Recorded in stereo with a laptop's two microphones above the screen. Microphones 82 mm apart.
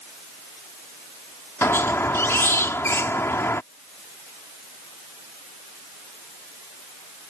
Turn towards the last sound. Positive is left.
turn(degrees=30)  # may be behind; listen again after turning